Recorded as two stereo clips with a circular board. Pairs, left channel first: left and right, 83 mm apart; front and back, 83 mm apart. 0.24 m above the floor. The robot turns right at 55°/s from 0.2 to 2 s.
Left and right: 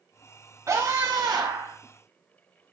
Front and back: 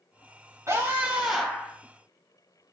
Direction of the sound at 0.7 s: 135° right.